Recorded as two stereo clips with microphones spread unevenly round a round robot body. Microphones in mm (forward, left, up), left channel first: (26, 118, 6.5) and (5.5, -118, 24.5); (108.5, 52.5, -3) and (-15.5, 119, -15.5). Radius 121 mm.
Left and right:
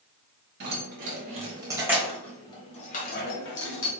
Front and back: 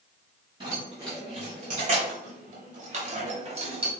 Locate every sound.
0.6 s keys jangling: 145° right, 1.5 m; by 3.9 s 110° left, 1.5 m